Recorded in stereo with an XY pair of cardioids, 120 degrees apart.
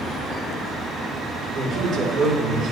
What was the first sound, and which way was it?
A man speaking, 50° right.